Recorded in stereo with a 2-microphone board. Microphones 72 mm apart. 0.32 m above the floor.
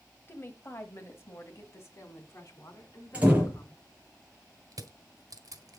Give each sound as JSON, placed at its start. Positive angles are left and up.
{"t": 0.3, "sound": "a woman speaking", "side_deg": 30, "distance_m": 1.4}
{"t": 3.1, "sound": "a door slam", "side_deg": -15, "distance_m": 4.5}
{"t": 4.7, "sound": "crushing", "side_deg": -55, "distance_m": 2.0}